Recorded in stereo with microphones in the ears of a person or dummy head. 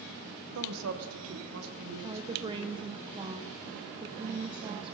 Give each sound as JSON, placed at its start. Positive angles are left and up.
{"t": 0.6, "sound": "a woman speaking", "side_deg": -85, "distance_m": 1.5}
{"t": 2.0, "sound": "a woman speaking", "side_deg": -25, "distance_m": 0.8}